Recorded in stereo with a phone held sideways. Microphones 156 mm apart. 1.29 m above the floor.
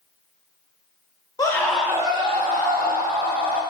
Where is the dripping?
No dripping in this recording.